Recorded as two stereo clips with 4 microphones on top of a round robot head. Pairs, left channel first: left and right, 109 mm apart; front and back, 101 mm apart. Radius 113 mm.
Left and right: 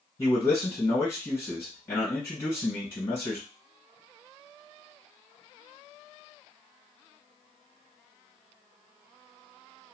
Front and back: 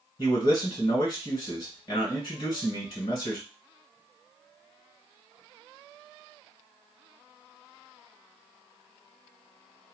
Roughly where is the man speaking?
Ahead left.